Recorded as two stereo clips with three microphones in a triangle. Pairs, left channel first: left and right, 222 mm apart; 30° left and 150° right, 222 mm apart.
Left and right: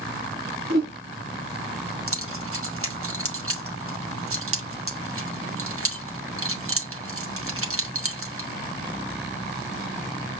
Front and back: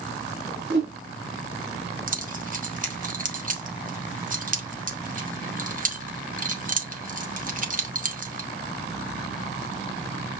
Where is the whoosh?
110° right, 3 m.